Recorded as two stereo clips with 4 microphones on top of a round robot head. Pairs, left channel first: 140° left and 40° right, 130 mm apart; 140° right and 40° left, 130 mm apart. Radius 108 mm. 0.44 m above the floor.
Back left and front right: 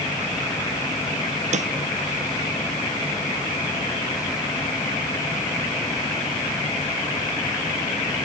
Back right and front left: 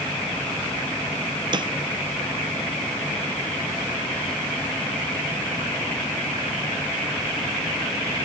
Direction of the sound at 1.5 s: 15° right.